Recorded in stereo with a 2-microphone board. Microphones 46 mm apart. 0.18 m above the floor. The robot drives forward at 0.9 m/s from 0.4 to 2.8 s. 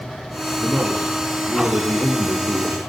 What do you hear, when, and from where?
0.6 s a man speaking: 65° right (ahead or behind), 6 m; by 2.8 s 80° right, 6 m